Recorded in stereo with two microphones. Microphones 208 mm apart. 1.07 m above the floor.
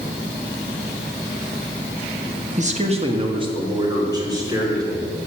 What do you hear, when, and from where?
2.6 s a man speaking: 35° right (ahead or behind), 1.3 m; by 5.1 s 15° right (ahead or behind), 4 m